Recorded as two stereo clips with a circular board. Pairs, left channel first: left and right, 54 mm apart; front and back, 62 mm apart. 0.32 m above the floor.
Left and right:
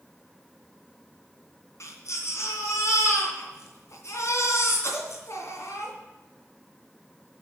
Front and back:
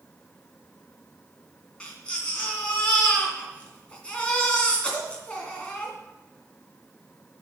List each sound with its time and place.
1.8 s a baby crying: 70° left, 2.5 m